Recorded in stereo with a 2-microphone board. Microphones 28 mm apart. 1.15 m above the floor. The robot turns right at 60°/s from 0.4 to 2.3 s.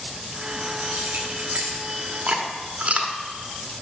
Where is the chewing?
50° right (ahead or behind), 1.3 m; by 3.1 s 45° right (ahead or behind), 1.3 m.